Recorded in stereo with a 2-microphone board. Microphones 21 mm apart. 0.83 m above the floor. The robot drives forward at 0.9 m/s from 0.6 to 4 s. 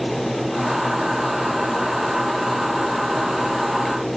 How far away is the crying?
No crying in this recording.